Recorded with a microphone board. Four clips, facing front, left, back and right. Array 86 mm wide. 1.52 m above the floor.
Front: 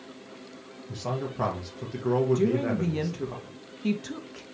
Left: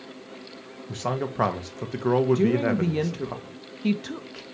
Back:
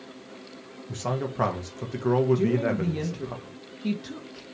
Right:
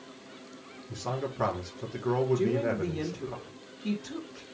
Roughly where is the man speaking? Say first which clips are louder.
Left 5 dB, back 2 dB; left.